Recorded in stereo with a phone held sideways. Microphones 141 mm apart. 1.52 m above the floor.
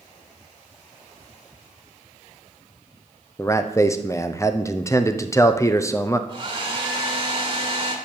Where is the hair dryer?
35° right (ahead or behind), 1.7 m.